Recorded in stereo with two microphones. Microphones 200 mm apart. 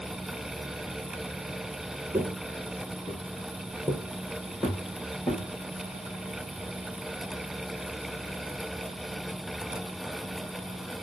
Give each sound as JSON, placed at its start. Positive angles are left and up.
{"t": 2.1, "sound": "footsteps", "side_deg": -10, "distance_m": 0.7}